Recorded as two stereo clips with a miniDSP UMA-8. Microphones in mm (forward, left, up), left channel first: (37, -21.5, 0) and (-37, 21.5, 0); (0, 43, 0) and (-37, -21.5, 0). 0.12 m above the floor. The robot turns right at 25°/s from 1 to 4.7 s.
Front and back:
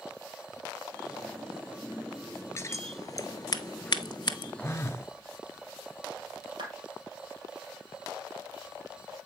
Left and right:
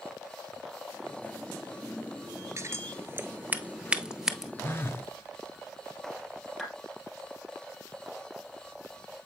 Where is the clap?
150° left, 3 m.